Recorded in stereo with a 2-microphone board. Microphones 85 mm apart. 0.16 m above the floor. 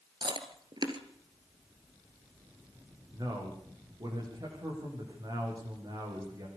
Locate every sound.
0.2 s chewing: 65° right (ahead or behind), 1.8 m
3.1 s a man speaking: 50° right (ahead or behind), 9 m